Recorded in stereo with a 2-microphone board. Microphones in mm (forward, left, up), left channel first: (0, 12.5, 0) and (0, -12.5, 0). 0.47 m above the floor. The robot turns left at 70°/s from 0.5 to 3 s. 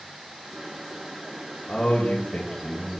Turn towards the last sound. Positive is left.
turn(degrees=15)